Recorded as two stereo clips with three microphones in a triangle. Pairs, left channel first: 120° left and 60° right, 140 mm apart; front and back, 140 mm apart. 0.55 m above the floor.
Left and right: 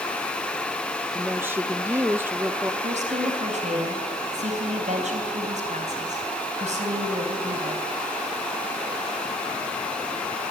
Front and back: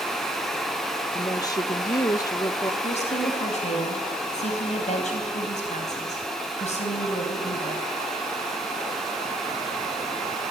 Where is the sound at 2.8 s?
30° right, 3.5 m.